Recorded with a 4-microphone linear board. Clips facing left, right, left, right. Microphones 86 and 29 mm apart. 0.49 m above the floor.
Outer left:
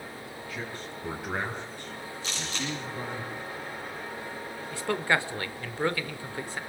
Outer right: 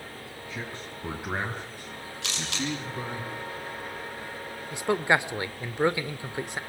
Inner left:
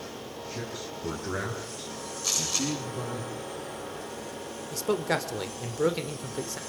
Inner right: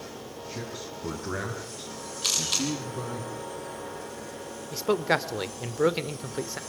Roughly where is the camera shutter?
Right.